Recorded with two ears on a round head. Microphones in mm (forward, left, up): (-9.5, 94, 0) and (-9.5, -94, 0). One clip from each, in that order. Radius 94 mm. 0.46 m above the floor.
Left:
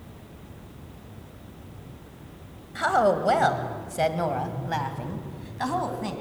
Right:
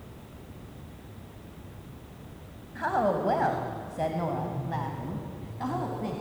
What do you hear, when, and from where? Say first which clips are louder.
2.8 s a woman speaking: left 5 dB; 70° left (ahead or behind), 2.0 m; by 6.1 s 40° left (ahead or behind), 3 m